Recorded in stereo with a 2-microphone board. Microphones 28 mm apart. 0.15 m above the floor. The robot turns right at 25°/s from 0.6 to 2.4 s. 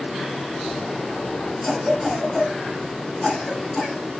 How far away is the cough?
About 1.7 m.